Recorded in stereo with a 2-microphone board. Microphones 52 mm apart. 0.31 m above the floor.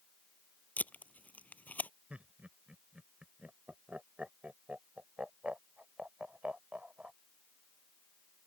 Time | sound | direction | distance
0.8 | tape being pulled | 30° left (ahead or behind) | ?
2.1 | laughter | 25° right (ahead or behind) | ?